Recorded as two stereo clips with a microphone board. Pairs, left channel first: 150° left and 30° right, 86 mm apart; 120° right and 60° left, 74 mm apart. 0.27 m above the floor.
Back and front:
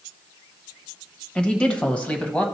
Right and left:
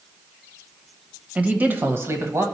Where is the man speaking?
95° left, 0.9 m; by 2.5 s 80° left, 1.3 m.